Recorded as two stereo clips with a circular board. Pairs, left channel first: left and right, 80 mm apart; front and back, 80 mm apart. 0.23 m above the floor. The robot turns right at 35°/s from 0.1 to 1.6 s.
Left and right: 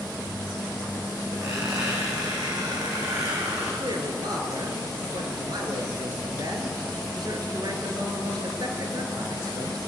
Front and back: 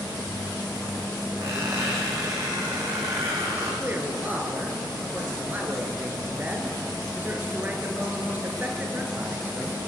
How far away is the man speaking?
About 4 m.